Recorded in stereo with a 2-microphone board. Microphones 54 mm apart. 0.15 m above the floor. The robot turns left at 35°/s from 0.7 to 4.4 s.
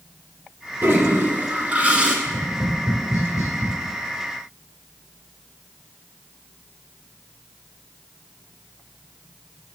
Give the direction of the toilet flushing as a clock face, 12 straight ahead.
4 o'clock.